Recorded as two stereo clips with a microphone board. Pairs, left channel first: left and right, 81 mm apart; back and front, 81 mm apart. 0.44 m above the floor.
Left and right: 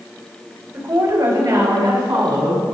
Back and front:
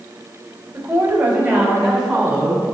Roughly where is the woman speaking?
Ahead right.